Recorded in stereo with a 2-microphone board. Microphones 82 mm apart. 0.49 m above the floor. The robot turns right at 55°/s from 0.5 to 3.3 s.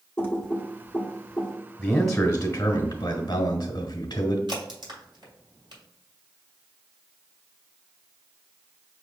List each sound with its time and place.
0.2 s typing on a keyboard: 25° left (ahead or behind), 1.0 m; by 1.6 s 5° left (ahead or behind), 1.0 m
1.8 s a man speaking: 5° right, 1.3 m; by 4.4 s 75° left, 1.3 m
4.5 s a crack: 65° right (ahead or behind), 2 m